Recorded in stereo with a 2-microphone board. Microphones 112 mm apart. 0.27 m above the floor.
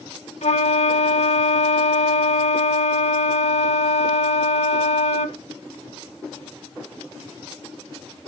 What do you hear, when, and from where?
0.4 s a flute: 80° left, 0.6 m